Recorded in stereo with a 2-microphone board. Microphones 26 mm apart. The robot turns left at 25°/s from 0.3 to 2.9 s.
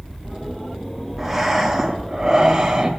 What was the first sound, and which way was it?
Breathing, 10° right.